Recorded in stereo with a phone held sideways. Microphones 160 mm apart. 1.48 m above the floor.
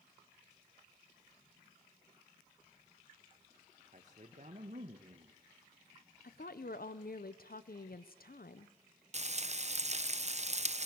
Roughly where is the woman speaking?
Left.